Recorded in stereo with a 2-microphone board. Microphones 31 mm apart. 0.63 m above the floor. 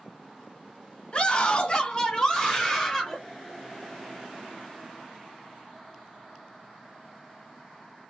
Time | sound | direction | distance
1.1 | a scream | 30° left (ahead or behind) | 1.1 m